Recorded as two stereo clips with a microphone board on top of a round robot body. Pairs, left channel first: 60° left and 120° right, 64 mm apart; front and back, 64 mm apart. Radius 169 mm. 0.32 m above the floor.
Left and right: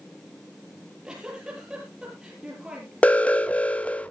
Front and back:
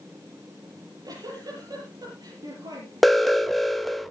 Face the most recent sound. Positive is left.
turn(degrees=85)